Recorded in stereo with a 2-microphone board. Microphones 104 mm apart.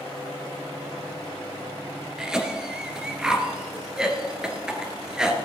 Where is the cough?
5° right (ahead or behind), 2.5 m.